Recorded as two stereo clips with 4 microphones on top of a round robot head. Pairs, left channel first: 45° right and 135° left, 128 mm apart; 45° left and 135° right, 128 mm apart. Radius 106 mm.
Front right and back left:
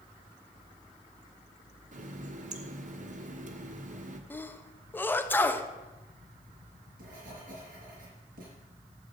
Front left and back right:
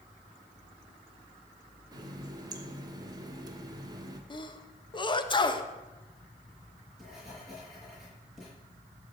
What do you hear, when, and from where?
1.9 s a running tap: 160° left, 1.1 m
4.3 s a sneeze: 25° left, 1.0 m
6.5 s writing: 135° left, 5.5 m